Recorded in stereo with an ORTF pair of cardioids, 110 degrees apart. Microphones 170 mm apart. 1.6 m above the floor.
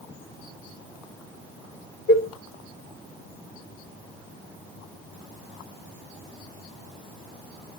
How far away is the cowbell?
About 2.5 m.